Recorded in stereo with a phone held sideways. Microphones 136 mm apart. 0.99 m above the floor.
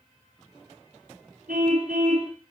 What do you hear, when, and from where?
1.5 s a car horn: 80° right, 5 m